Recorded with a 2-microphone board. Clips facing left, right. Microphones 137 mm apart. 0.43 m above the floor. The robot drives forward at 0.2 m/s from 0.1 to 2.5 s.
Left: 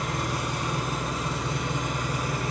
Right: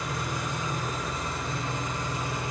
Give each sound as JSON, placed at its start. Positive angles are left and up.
{"t": 0.0, "sound": "an engine running", "side_deg": 75, "distance_m": 3.0}